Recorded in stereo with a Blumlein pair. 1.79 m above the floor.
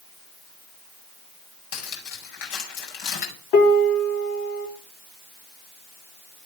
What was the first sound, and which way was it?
Cutlery clinking, 50° left.